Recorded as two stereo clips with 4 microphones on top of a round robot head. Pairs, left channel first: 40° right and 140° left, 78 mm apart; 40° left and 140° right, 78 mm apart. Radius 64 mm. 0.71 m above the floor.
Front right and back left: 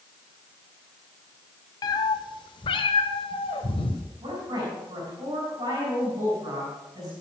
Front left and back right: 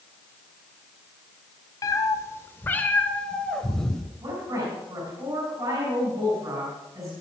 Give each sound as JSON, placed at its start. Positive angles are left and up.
{"t": 1.8, "sound": "a cat meowing", "azimuth_deg": -5, "distance_m": 1.0}
{"t": 4.2, "sound": "a woman speaking", "azimuth_deg": 175, "distance_m": 6.0}